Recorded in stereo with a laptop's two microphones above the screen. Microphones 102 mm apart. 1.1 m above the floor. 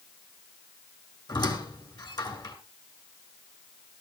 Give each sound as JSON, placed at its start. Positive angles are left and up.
{"t": 1.3, "sound": "a squeak", "side_deg": 45, "distance_m": 2.5}